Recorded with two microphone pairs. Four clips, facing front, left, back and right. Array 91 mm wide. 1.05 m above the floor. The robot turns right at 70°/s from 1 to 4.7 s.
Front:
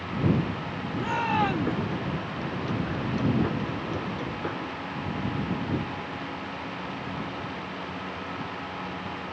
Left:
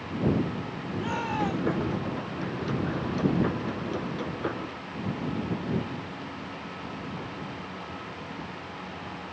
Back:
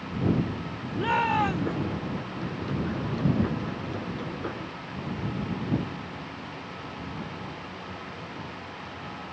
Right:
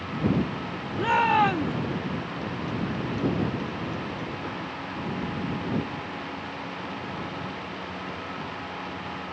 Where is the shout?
120° right; by 1.8 s 70° right.